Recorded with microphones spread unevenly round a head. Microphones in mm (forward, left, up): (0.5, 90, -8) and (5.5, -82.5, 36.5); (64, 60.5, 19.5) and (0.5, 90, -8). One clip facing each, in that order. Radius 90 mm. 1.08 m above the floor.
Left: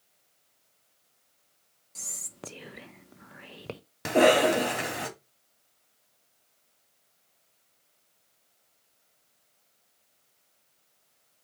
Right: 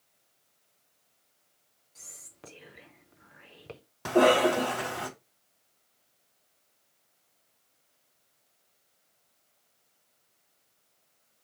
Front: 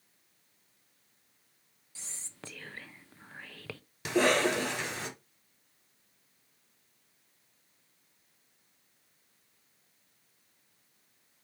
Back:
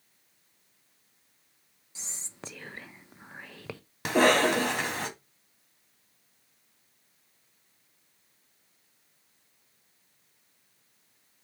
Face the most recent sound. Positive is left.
turn(degrees=150)